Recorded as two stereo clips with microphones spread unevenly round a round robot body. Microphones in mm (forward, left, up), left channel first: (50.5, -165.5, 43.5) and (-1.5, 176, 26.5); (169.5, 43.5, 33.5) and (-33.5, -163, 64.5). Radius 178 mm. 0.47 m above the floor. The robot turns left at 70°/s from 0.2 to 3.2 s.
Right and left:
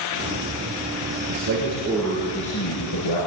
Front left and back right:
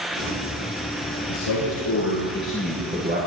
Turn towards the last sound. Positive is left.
turn(degrees=-80)